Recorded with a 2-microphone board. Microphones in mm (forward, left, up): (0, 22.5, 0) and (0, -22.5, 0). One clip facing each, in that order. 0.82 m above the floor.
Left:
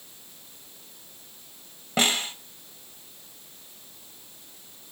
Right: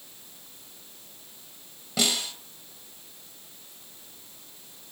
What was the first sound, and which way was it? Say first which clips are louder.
A snare drum: left 3 dB; 35° left (ahead or behind).